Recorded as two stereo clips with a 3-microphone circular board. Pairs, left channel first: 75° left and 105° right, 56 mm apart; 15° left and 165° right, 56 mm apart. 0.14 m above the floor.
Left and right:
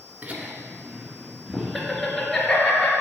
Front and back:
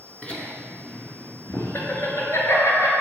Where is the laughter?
50° right, 1.9 m; by 2.9 s 10° left, 3 m.